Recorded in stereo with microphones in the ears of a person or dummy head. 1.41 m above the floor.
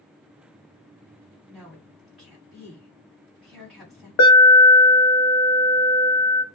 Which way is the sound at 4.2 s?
75° left (ahead or behind).